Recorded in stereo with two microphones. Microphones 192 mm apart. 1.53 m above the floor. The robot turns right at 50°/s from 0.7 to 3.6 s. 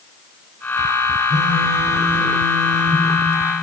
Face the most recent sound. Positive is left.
turn(degrees=150)